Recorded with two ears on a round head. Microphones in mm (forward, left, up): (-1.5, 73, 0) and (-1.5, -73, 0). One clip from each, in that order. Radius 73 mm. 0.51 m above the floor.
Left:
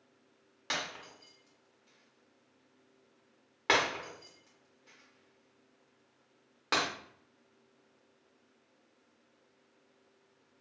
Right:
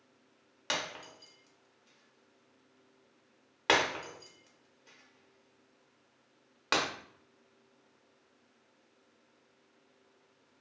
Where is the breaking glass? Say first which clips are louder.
Right 1 dB; 20° right (ahead or behind), 0.6 m.